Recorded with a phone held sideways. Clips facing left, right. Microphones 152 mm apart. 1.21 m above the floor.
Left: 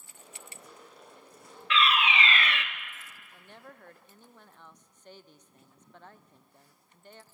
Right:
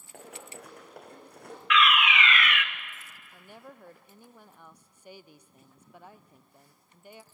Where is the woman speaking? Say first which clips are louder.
Right 3 dB; 10° right (ahead or behind), 0.6 m.